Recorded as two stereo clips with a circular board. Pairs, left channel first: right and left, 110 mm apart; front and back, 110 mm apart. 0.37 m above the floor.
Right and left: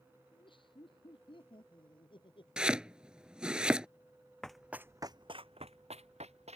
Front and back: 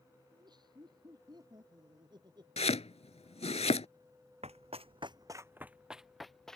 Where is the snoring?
I don't hear snoring.